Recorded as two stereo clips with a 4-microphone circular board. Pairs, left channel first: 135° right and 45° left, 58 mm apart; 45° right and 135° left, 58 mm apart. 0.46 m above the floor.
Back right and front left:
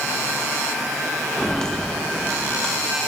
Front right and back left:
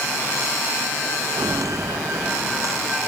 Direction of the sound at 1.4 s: 145° left.